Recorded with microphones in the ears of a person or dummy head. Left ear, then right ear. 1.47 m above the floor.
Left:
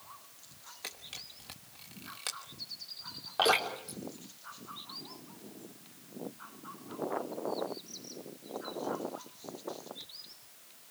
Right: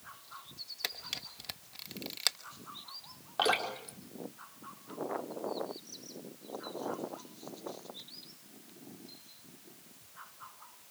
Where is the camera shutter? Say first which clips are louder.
Right 5 dB; 35° right (ahead or behind), 1.1 m.